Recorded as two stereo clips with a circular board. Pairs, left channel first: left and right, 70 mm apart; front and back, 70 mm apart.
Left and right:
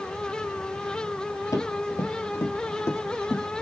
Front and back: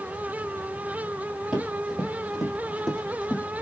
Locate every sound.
1.5 s running footsteps: 100° left, 2 m; by 3.6 s 55° left, 1.6 m